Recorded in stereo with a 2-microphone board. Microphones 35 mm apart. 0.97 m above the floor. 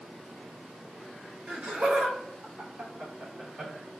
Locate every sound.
1.5 s laughter: 35° right (ahead or behind), 1.2 m; by 3.7 s 45° right (ahead or behind), 0.9 m